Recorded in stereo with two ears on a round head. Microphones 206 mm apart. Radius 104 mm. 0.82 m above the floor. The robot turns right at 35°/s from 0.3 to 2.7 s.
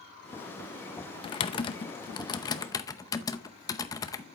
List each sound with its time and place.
1.2 s typing on a keyboard: 25° left (ahead or behind), 0.7 m; by 4.2 s 15° left (ahead or behind), 0.7 m